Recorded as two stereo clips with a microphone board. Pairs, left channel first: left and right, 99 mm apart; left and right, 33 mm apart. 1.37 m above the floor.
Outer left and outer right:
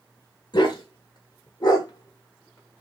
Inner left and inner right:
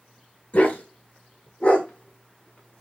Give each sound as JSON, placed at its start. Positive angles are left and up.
{"t": 0.5, "sound": "a dog barking", "side_deg": 45, "distance_m": 1.4}